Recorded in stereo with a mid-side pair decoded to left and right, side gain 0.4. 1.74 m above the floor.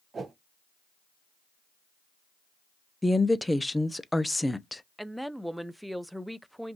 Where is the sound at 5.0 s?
5° right, 0.5 m.